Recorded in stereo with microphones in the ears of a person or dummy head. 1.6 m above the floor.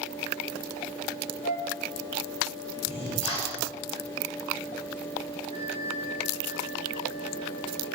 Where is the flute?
45° left (ahead or behind), 3.5 m.